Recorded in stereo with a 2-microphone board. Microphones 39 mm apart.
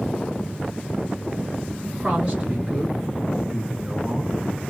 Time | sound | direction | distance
1.8 | a man speaking | 30° right (ahead or behind) | 1.8 m